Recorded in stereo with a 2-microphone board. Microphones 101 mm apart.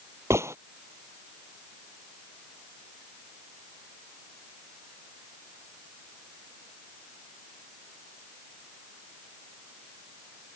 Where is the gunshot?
30° right (ahead or behind).